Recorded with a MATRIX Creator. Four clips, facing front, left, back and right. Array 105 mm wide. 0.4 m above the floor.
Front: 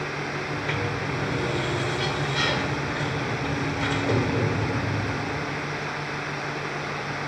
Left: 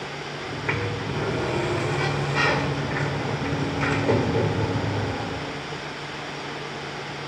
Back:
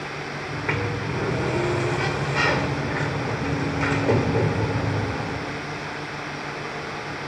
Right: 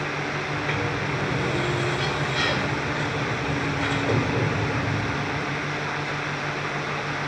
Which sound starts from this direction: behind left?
A sliding door, at 0.4 s.